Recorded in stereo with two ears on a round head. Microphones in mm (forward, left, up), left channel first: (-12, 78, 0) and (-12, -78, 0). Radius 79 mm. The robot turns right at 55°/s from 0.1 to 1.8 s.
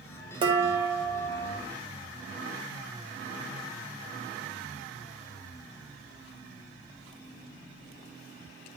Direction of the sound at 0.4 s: 30° right.